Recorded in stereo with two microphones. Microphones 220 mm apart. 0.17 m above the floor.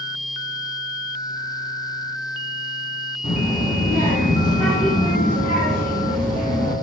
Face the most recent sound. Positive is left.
turn(degrees=25)  # may be behind; listen again after turning